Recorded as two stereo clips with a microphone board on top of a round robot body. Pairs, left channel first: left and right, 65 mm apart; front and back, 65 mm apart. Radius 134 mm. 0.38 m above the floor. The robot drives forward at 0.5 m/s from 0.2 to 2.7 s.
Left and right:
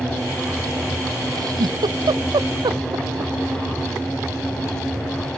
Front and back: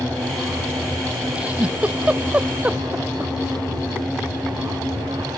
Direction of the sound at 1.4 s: 105° right.